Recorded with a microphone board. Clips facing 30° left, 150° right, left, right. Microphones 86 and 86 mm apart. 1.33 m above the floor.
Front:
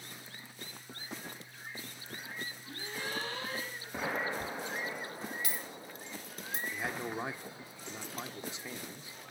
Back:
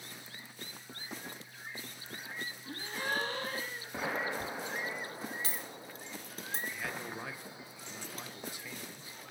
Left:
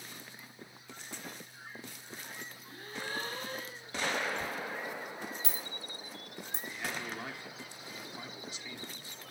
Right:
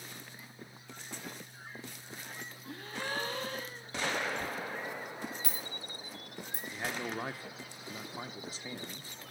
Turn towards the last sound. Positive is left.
turn(degrees=-35)